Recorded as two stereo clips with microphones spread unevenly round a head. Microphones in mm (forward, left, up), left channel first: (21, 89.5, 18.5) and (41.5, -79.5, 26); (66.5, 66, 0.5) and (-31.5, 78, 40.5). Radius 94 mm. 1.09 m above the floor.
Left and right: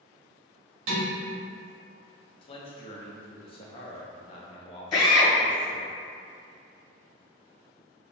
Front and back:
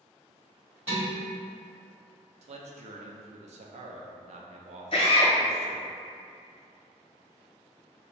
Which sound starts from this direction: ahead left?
A drill, at 4.9 s.